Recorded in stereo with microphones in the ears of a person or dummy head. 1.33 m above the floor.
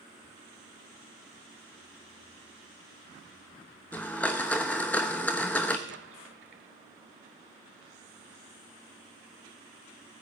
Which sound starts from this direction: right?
An explosion, at 5.9 s.